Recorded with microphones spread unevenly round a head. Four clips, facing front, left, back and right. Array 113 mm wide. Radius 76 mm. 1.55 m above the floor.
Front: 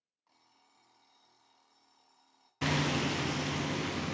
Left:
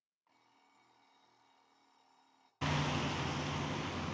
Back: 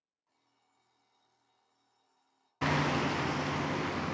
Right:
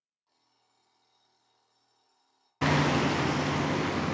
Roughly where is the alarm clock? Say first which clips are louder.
Left 4 dB, front 6 dB; ahead left.